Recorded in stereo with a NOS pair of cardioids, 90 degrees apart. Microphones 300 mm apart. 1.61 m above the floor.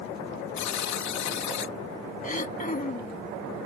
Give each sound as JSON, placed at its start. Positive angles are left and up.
{"t": 0.6, "sound": "a buzzer", "azimuth_deg": 65}
{"t": 2.2, "sound": "throat clearing", "azimuth_deg": 25}